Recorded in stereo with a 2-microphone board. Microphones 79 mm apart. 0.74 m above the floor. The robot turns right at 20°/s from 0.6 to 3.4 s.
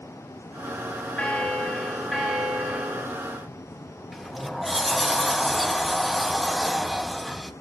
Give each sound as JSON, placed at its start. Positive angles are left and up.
{"t": 1.2, "sound": "a bell", "azimuth_deg": 160, "distance_m": 3.5}
{"t": 4.1, "sound": "a sliding door", "side_deg": 0, "distance_m": 0.5}